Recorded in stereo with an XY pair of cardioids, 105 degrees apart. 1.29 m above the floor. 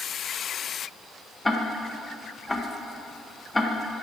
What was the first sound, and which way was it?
Ticking, 10° left.